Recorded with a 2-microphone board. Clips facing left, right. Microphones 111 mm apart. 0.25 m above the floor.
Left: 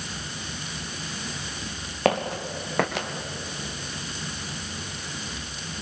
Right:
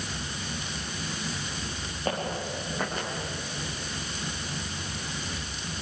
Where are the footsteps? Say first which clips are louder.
Left 7 dB; 85° left, 4 m.